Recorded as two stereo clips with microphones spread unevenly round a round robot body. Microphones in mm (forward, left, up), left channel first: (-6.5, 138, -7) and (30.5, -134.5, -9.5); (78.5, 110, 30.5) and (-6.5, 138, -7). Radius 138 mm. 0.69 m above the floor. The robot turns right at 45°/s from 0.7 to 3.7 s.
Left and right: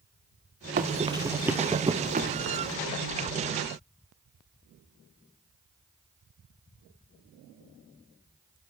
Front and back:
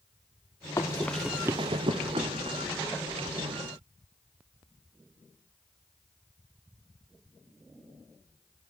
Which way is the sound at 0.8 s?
30° right.